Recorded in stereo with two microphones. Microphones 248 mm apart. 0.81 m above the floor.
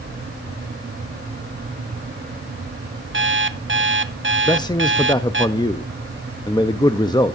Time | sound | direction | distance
3.1 | an alarm clock | 50° right (ahead or behind) | 0.6 m
4.5 | a man speaking | 15° left (ahead or behind) | 0.6 m